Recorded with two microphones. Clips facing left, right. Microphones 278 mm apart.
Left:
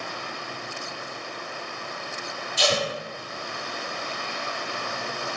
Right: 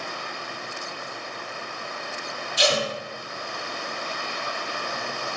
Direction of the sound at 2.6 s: 20° right (ahead or behind).